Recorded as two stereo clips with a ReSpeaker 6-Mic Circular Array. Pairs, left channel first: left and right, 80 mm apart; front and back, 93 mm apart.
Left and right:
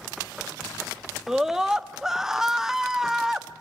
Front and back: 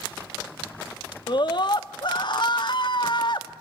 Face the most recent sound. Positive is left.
turn(degrees=-5)